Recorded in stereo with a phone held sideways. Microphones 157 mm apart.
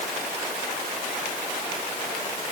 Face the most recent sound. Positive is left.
No sound to turn to.